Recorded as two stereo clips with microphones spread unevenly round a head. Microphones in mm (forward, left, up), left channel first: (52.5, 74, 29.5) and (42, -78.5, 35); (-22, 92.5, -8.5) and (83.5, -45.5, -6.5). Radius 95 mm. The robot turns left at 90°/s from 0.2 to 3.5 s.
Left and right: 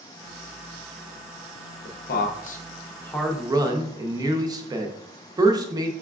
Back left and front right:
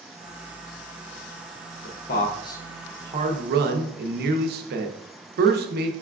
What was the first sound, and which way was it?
A man speaking, 120° left.